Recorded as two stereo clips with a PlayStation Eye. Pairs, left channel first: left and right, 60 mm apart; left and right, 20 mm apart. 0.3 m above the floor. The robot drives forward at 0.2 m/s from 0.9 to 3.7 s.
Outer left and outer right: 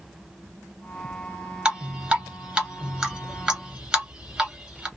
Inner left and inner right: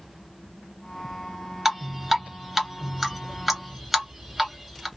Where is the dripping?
15° right (ahead or behind), 1.3 m; by 4.9 s 10° right (ahead or behind), 1.7 m.